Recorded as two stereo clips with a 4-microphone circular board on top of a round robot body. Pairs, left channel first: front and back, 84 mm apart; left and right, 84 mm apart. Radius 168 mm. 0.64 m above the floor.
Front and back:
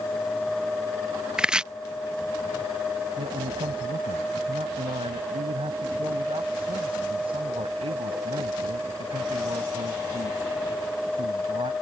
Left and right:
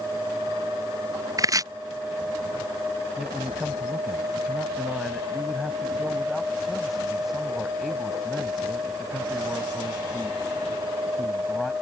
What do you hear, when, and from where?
1.4 s chopping: 105° right
3.2 s a man speaking: straight behind